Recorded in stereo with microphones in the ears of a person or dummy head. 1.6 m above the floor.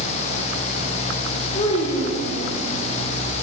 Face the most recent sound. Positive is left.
turn(degrees=35)  # may be behind; listen again after turning